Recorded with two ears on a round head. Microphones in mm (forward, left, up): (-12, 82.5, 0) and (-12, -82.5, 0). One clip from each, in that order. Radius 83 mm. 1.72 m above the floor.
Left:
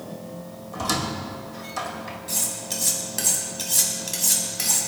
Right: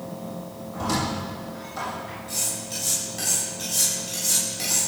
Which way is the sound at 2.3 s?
45° left (ahead or behind).